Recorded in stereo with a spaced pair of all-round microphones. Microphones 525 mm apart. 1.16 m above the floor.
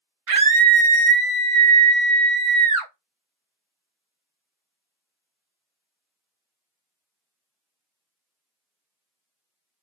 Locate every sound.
0.3 s a scream: 80° right, 0.9 m